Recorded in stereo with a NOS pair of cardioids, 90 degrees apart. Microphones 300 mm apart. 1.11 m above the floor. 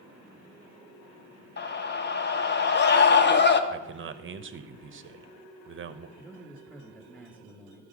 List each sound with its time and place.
1.6 s a scream: 35° left, 1.3 m
3.7 s a man speaking: 40° right, 0.9 m
6.2 s a man speaking: 5° right, 1.7 m